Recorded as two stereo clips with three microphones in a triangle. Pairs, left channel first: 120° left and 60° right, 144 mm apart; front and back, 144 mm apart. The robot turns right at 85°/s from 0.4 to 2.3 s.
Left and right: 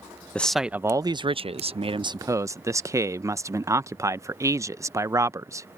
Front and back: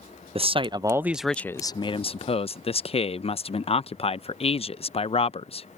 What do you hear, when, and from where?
0.3 s a man speaking: 160° right; by 5.7 s straight ahead